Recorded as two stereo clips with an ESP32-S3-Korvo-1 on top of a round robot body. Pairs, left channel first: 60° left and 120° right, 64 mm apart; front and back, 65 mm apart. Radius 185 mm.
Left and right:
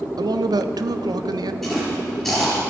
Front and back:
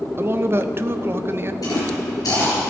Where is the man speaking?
125° right, 0.7 m.